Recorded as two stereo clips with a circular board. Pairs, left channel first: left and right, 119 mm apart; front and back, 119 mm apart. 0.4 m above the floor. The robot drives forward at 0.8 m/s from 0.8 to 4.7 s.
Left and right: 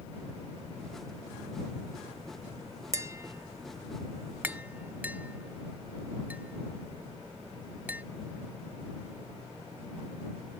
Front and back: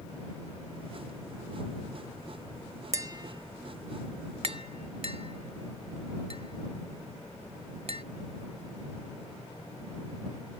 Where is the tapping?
135° right; by 8.0 s 165° right.